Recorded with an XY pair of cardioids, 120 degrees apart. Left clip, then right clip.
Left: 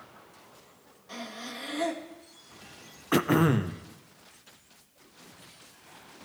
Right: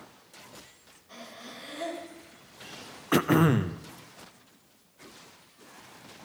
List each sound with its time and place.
1.1 s breathing: 50° left, 2.5 m
3.1 s throat clearing: 5° right, 0.6 m